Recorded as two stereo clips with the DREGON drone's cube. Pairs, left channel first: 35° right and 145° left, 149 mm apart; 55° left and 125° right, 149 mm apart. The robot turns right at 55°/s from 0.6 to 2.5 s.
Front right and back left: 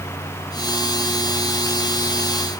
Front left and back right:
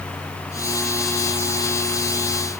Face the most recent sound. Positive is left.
No sound to turn to.